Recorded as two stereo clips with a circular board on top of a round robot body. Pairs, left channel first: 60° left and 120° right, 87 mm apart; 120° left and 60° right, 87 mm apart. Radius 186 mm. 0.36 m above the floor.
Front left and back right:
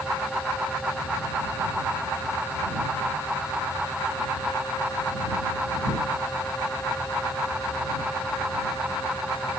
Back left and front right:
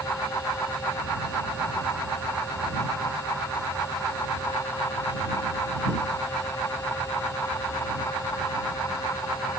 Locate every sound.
Only background noise.